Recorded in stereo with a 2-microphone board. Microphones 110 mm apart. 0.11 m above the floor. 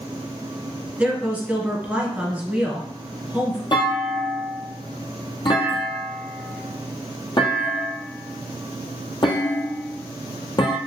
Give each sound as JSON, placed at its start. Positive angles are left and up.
{"t": 1.0, "sound": "a woman speaking", "side_deg": -15, "distance_m": 1.1}
{"t": 3.7, "sound": "a clunk", "side_deg": 50, "distance_m": 1.0}